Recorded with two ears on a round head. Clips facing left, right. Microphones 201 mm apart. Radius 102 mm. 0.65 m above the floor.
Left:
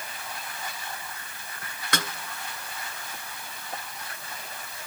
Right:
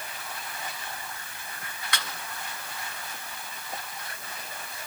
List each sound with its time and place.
1.9 s a snare drum: 40° left (ahead or behind), 2.5 m